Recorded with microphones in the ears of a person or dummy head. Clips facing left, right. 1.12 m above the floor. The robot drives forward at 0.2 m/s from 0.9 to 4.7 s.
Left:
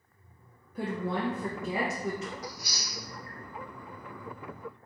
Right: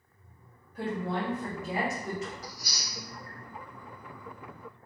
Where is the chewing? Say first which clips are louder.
Left 3 dB; 35° left (ahead or behind), 1.2 m.